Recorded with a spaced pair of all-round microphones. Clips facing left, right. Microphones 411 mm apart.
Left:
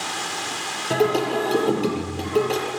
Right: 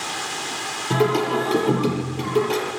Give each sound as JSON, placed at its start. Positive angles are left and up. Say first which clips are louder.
{"t": 0.9, "sound": "singing", "louder": "even", "side_deg": -15, "distance_m": 6.5}